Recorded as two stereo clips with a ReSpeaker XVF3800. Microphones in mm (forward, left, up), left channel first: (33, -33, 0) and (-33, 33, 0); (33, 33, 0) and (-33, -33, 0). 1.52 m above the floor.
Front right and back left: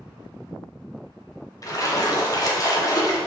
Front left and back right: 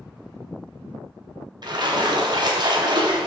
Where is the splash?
95° right, 1.2 m.